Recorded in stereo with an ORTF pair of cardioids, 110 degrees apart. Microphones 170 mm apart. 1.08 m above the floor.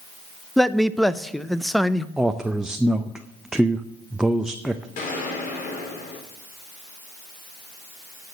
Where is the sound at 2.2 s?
5° right, 0.5 m.